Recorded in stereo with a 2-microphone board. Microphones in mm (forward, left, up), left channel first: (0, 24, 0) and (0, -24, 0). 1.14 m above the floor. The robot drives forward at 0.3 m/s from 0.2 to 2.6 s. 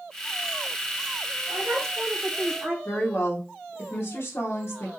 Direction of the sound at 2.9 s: 50° left (ahead or behind).